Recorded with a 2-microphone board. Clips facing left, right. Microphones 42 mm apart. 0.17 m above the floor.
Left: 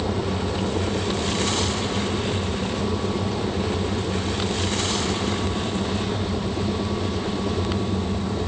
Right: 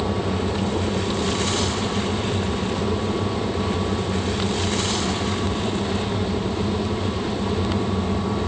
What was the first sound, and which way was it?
Only background noise.